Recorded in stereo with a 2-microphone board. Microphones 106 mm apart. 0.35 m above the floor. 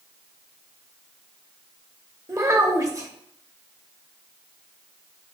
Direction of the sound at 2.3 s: 30° right (ahead or behind).